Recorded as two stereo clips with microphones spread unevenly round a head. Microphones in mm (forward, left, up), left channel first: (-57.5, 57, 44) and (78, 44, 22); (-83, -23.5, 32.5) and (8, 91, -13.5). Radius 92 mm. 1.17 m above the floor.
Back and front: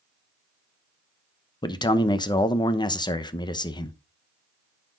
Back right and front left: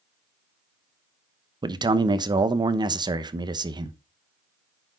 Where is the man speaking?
110° left, 0.9 m.